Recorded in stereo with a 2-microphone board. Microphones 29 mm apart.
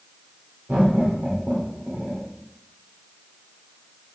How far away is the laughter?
About 2 m.